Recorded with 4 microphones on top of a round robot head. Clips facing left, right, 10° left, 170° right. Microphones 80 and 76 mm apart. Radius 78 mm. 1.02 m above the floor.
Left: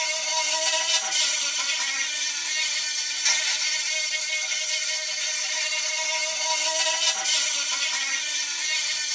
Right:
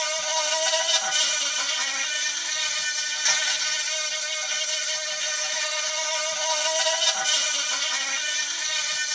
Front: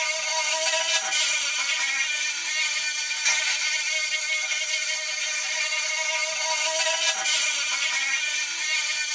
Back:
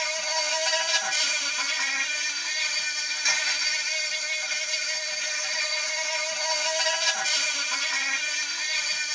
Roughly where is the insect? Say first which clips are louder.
Right 2 dB, front 1 dB; right.